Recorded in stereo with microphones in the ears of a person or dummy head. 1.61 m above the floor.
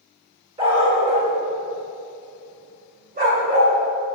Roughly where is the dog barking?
Right.